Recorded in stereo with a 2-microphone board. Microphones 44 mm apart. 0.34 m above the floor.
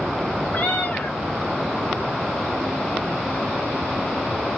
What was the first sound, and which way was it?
A cat meowing, 40° left (ahead or behind).